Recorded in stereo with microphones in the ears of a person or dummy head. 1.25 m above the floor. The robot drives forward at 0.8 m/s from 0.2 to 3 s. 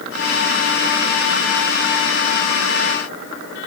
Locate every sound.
Only background noise.